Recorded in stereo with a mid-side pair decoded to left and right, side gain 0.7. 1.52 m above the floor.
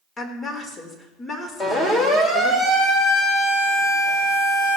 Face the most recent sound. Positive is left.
turn(degrees=15)